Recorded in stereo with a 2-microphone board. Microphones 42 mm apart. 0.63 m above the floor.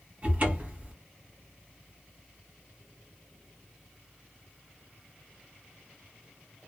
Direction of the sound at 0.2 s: 35° right (ahead or behind).